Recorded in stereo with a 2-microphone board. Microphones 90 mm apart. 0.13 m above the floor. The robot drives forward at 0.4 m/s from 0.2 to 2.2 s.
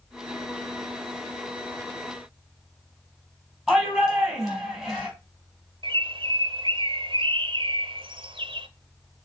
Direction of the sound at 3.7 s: Centre (ahead or behind).